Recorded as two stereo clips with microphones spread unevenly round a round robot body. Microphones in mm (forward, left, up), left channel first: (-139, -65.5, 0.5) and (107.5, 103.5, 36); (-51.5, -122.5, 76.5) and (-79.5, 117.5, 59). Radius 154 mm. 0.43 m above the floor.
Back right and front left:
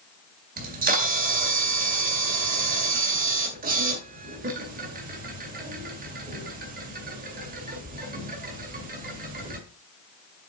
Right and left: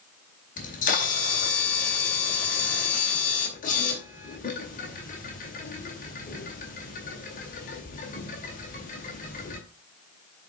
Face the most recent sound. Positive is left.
turn(degrees=-30)